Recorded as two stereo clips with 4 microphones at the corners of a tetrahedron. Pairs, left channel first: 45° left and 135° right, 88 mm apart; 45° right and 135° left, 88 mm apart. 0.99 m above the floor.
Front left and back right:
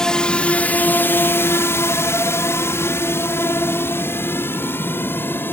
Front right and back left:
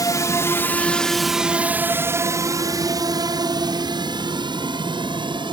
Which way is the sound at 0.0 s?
35° right.